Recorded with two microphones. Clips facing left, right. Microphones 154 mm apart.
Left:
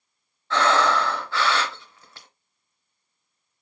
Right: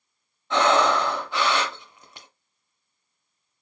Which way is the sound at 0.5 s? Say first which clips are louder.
Right 1 dB; 20° right (ahead or behind).